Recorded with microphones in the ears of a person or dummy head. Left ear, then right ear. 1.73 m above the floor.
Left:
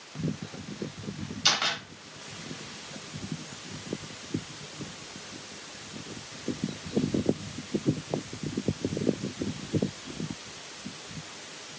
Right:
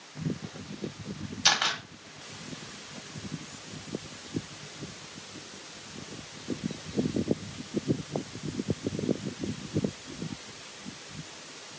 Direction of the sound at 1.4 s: 15° right (ahead or behind).